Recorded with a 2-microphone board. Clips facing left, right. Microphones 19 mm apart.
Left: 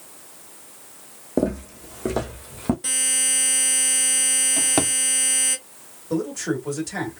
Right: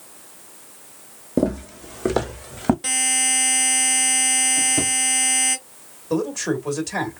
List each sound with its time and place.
1.4 s footsteps: 10° right (ahead or behind), 1.0 m; by 2.7 s 35° right (ahead or behind), 1.4 m
2.8 s a buzzer: 15° right (ahead or behind), 1.2 m
4.6 s a drawer: 70° left (ahead or behind), 0.8 m
6.1 s a man speaking: 25° right (ahead or behind), 1.5 m